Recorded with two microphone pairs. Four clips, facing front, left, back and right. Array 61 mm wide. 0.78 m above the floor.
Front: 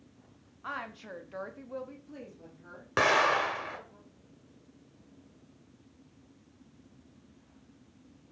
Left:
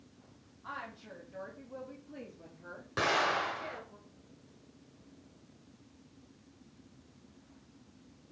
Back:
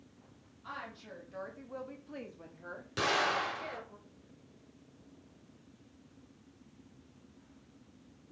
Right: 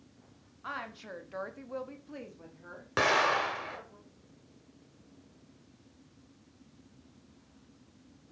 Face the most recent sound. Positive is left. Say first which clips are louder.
# right 3 dB, front 6 dB
turn(degrees=-30)